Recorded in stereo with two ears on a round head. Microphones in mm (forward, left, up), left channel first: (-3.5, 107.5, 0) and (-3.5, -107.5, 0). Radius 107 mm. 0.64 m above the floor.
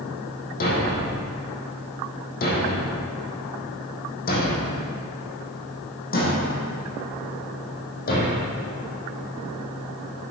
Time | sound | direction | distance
0.6 | a thud | 40° left (ahead or behind) | 2.5 m